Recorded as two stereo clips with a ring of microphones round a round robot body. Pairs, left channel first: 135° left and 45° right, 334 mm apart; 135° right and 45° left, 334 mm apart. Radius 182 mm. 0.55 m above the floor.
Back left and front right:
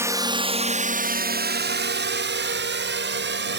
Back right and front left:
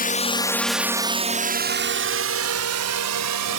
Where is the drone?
115° right; by 3.6 s 10° left.